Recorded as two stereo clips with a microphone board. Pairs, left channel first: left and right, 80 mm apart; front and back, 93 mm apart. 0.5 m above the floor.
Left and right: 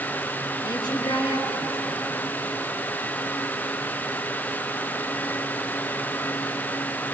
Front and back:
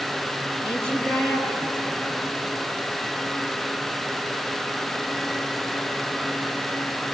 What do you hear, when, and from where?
0.6 s a woman speaking: 120° left, 7.5 m; by 2.4 s 135° left, 7 m